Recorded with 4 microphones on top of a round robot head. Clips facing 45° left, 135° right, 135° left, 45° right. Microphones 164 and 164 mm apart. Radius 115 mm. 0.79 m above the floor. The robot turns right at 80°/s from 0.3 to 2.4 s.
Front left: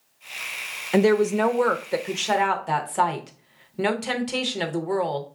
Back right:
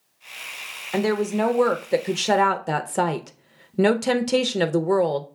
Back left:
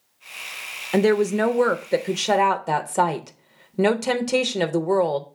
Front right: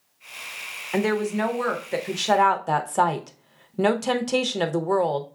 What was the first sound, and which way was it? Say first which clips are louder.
A woman speaking: front left 4 dB, back left 5 dB; 95° left.